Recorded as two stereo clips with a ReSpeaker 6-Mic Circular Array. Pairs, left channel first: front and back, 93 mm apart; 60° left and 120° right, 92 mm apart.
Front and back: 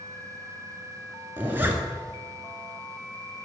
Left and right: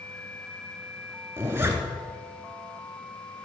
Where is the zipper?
145° right, 0.7 m.